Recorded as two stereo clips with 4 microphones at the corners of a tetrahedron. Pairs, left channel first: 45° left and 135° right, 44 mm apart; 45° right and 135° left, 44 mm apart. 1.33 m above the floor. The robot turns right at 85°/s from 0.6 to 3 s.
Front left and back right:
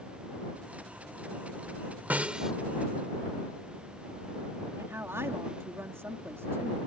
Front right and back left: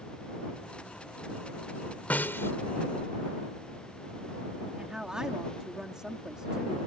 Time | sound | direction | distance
2.1 | a snare drum | 95° right | ?
4.8 | a woman speaking | 150° right | ?